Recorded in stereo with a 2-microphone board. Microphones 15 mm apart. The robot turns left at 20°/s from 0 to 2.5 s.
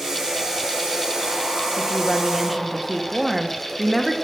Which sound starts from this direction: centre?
A woman speaking, at 1.8 s.